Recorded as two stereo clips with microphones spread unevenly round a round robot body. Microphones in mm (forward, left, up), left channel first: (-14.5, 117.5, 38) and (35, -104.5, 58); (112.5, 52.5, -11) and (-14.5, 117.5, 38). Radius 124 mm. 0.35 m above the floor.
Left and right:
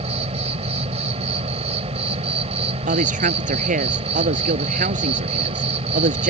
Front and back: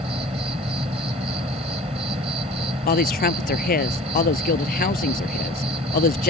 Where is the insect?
140° right.